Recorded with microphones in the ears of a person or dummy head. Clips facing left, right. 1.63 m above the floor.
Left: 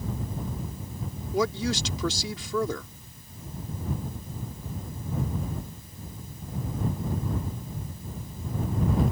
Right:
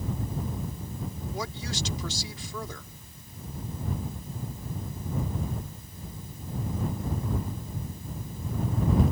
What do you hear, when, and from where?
1.3 s a woman speaking: 60° left (ahead or behind)